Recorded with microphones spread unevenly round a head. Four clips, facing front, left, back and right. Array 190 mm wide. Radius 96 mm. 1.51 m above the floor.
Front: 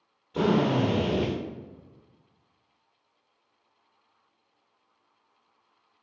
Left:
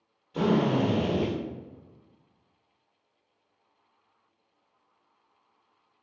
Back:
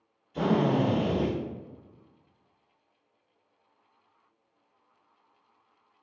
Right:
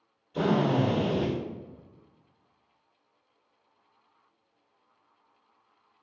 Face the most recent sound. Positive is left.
turn(degrees=25)